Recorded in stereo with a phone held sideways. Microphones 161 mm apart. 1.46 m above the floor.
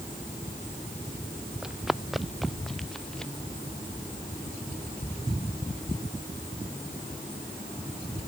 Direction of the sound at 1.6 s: 5° right (ahead or behind).